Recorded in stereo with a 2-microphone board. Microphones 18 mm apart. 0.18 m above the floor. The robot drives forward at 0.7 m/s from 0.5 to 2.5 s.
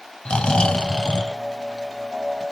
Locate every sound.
0.2 s snoring: 55° left (ahead or behind), 0.8 m; by 2.4 s 25° left (ahead or behind), 1.6 m